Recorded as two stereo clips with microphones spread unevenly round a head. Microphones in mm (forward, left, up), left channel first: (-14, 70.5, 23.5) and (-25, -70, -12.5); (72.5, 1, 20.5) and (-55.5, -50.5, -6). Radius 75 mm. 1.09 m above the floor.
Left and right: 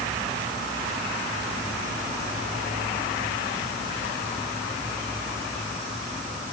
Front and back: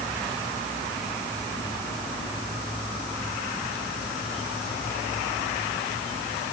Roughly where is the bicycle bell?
I don't hear a bicycle bell.